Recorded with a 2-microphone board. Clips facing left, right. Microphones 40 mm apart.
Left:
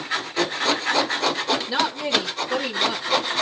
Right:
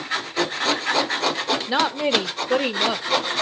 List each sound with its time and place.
1.7 s a woman speaking: 30° right (ahead or behind), 1.2 m; by 3.3 s 65° right (ahead or behind), 2 m